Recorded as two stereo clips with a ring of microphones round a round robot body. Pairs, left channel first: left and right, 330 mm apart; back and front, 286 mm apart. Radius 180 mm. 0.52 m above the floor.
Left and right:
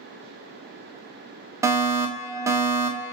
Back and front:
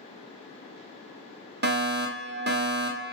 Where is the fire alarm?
15° right, 2 m.